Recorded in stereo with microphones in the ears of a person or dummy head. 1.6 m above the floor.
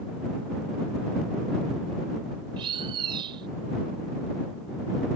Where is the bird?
30° right (ahead or behind).